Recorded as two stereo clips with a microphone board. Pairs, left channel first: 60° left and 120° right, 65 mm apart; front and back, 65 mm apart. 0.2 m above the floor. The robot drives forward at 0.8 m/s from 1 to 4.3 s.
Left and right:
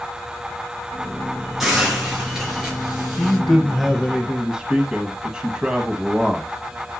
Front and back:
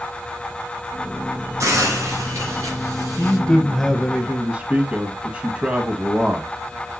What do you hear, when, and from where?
1.6 s a hiss: 155° left, 3 m; by 3.4 s 165° left, 4.5 m
3.2 s a man speaking: 5° right, 1.1 m; by 6.5 s 170° right, 1.0 m